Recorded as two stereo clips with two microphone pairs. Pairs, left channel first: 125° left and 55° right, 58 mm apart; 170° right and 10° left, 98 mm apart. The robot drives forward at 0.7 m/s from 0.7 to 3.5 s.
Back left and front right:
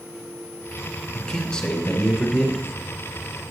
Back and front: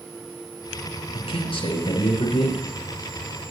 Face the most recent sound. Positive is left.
turn(degrees=-165)